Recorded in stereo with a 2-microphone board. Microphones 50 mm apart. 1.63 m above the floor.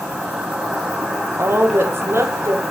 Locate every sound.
0.0 s an insect: 10° right (ahead or behind), 3.5 m
1.4 s a woman speaking: 55° right (ahead or behind), 1.2 m